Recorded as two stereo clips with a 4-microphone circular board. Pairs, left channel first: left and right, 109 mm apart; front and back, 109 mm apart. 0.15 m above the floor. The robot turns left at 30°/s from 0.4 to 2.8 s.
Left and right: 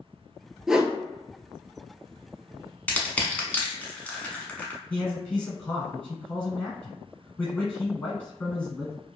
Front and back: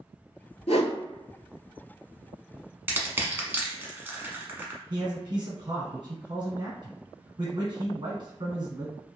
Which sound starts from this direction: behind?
A man speaking, at 4.9 s.